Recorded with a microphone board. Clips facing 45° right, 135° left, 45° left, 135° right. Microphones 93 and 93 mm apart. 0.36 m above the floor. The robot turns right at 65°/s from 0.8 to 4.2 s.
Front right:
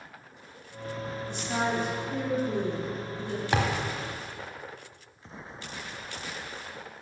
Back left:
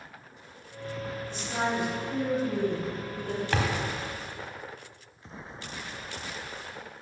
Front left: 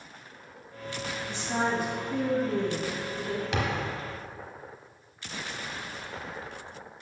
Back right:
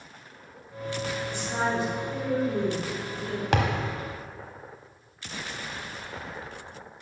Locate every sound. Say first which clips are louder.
1.3 s a woman speaking: front right 1 dB, front left 1 dB; 25° right, 3 m; by 3.4 s 110° left, 3 m
3.5 s a thud: front right 3 dB, back right 7 dB; 120° right, 1.0 m; by 3.9 s 95° right, 1.0 m